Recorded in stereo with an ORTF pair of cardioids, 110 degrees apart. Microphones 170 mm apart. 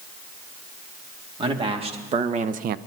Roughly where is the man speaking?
Ahead right.